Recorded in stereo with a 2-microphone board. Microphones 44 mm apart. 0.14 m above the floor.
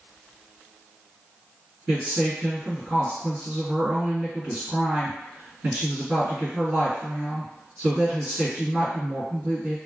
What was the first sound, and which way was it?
A woman speaking, 30° right (ahead or behind).